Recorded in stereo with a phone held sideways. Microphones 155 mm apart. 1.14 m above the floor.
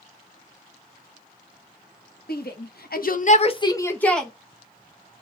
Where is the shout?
80° left, 0.9 m; by 4.3 s centre (ahead or behind), 0.9 m.